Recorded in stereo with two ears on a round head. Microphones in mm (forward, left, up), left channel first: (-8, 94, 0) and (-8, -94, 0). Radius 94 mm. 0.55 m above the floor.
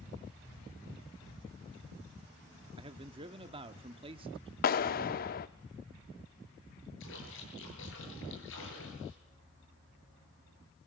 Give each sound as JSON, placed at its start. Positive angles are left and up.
{"t": 2.8, "sound": "a man speaking", "side_deg": -25, "distance_m": 1.0}
{"t": 4.6, "sound": "a clap", "side_deg": 45, "distance_m": 0.7}
{"t": 7.0, "sound": "a splash", "side_deg": 70, "distance_m": 10.0}